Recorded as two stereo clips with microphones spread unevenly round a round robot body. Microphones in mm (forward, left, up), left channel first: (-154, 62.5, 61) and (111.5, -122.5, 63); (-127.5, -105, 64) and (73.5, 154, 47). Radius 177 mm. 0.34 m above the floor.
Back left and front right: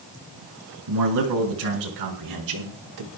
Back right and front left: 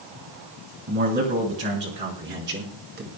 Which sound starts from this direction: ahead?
A man speaking, at 0.9 s.